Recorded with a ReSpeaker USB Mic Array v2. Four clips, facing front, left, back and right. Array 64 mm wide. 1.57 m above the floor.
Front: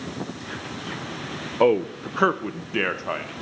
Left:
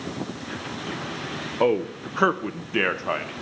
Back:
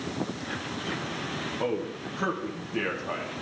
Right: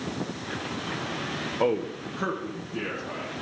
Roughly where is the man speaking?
Ahead.